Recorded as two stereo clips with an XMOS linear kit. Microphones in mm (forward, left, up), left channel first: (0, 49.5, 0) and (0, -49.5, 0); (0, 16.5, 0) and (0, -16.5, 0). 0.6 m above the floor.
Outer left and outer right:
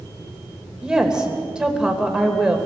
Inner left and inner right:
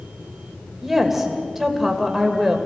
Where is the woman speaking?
10° right (ahead or behind), 2.5 m.